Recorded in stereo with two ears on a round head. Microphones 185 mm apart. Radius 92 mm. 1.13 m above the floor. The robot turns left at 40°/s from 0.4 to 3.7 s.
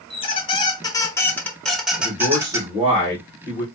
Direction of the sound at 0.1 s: 25° left (ahead or behind).